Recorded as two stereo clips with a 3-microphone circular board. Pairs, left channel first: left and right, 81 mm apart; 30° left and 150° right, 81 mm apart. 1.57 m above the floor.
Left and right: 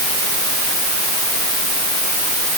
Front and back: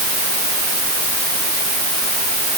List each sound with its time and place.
Only background noise.